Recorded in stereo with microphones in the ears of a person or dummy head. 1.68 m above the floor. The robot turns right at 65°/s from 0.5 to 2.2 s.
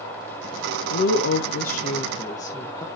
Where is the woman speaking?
80° left, 1.1 m; by 2.9 s 165° left, 1.1 m.